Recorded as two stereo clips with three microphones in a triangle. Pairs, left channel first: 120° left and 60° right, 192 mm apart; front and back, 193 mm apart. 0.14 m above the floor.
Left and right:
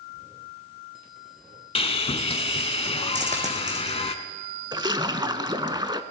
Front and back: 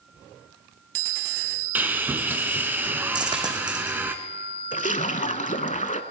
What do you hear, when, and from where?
1.8 s sawing: 110° left, 0.8 m
3.1 s a dropped coin: 110° right, 2.5 m
4.7 s a splash: 5° right, 0.6 m